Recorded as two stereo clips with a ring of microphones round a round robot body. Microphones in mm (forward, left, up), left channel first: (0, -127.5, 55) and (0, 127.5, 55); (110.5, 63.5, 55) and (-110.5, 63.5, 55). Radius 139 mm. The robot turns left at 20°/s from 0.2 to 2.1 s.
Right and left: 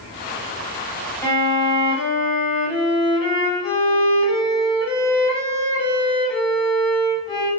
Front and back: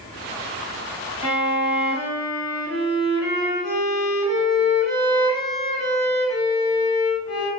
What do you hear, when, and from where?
1.2 s a violin: 10° right, 1.3 m; by 7.5 s 30° right, 1.3 m